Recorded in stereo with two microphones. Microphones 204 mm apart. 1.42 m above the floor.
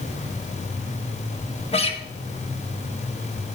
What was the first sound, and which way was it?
A guitar, 30° left (ahead or behind).